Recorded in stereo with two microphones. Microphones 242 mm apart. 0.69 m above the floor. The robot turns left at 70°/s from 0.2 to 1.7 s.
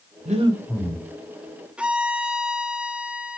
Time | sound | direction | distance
0.2 | breathing | 145° right | 1.2 m
1.8 | a violin | 5° right (ahead or behind) | 0.8 m